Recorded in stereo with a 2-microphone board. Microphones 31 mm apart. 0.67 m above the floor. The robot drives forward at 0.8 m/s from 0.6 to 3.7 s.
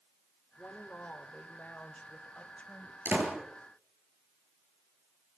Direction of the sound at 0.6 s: 60° left (ahead or behind).